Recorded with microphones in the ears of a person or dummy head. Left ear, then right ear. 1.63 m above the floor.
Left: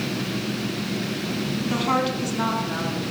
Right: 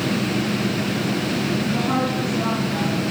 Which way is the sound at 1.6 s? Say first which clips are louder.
Left 4 dB; 40° left (ahead or behind).